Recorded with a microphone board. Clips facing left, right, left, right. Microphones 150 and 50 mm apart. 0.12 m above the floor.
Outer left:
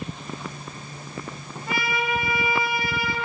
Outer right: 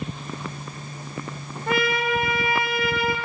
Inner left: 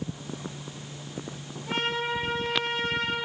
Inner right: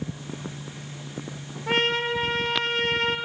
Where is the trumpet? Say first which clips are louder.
Outer right 4 dB, inner right 5 dB; 55° right (ahead or behind), 1.3 m.